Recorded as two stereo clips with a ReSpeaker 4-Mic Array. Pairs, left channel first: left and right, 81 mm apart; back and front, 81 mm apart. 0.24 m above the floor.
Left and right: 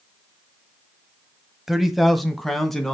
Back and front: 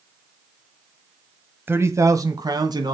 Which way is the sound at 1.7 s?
10° right.